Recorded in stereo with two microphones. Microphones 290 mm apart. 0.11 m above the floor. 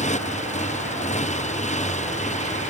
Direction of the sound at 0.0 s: 25° left (ahead or behind).